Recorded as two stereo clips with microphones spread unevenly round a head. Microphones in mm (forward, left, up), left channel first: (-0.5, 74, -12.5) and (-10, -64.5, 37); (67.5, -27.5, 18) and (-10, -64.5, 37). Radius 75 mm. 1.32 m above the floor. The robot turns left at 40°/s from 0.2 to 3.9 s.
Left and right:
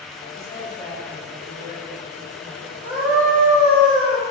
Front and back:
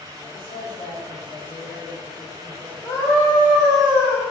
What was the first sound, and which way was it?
A man speaking, 40° left.